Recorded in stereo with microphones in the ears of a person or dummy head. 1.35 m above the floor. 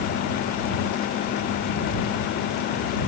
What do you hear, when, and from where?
Only background noise.